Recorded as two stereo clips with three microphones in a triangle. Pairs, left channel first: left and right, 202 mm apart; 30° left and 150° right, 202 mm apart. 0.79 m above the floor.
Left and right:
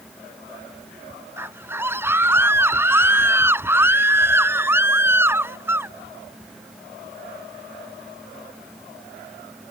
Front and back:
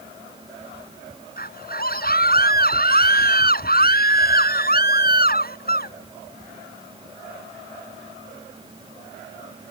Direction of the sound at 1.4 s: 10° right.